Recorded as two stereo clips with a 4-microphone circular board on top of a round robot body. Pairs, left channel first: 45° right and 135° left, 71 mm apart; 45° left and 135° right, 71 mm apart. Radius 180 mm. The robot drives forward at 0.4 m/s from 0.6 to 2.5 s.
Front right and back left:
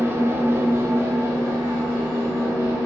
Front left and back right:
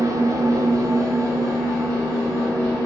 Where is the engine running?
170° right, 0.7 m; by 2.9 s 175° right, 1.4 m.